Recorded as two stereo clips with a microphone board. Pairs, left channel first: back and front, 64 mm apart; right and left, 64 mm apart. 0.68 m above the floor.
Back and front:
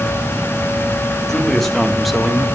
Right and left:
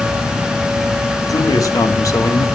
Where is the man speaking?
95° right, 3 m; by 2.5 s 85° right, 1.7 m.